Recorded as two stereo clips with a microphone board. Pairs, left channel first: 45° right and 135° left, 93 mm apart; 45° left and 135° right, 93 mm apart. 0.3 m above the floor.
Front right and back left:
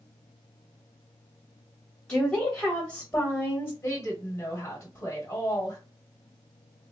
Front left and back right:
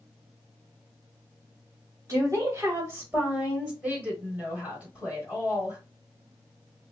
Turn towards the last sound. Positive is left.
turn(degrees=-75)